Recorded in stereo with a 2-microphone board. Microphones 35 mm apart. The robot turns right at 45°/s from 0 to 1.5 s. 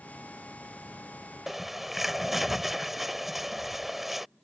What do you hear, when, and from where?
1.5 s a bird: 5° right (ahead or behind)